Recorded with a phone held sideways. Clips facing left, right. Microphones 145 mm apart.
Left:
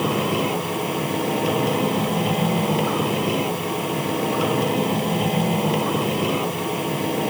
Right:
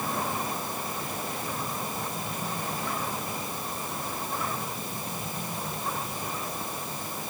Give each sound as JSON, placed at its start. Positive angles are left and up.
{"t": 0.0, "sound": "a machine running", "side_deg": 90}